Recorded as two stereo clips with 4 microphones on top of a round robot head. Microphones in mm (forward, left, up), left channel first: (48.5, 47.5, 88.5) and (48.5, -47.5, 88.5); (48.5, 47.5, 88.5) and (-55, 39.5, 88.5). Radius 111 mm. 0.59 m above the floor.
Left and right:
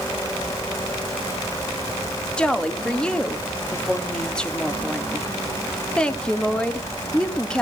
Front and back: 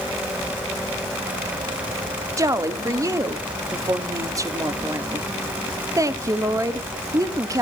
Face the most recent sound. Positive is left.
turn(degrees=165)